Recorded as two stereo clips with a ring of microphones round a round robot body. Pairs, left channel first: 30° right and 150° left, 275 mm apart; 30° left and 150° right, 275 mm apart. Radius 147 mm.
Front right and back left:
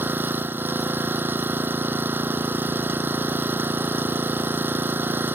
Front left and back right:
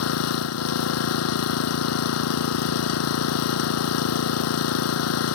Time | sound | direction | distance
0.0 | an engine running | 65° left | ?